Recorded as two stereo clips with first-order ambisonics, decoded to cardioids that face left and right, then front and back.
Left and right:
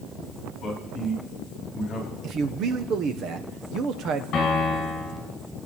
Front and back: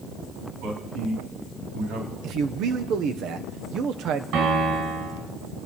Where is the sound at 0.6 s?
150° left, 4.5 m.